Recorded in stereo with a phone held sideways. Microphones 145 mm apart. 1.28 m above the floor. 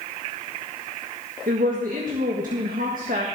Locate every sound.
1.5 s a woman speaking: 75° right (ahead or behind), 1.5 m